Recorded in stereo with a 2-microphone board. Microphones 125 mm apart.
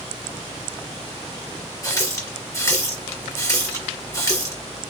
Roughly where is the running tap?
Left.